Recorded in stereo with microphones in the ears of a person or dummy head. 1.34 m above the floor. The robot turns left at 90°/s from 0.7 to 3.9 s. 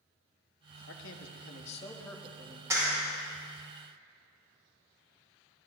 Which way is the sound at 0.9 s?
115° left.